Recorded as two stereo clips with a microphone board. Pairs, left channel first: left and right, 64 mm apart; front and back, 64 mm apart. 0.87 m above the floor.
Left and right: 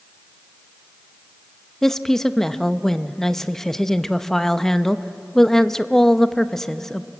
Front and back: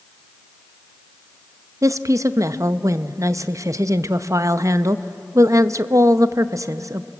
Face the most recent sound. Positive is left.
turn(degrees=170)